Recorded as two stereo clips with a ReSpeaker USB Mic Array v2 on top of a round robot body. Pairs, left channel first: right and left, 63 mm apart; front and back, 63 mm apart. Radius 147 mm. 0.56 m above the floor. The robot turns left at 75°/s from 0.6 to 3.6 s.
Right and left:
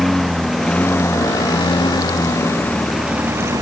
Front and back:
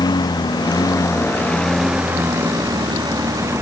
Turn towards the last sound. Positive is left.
turn(degrees=135)